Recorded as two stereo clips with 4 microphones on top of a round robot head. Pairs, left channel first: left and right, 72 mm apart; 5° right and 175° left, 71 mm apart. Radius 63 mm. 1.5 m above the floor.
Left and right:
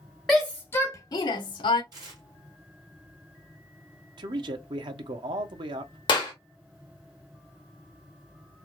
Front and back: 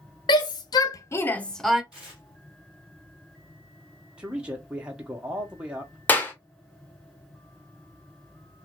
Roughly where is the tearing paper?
Right.